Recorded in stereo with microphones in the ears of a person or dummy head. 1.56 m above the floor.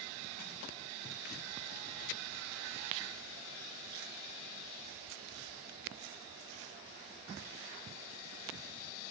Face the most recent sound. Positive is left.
No sound to turn to.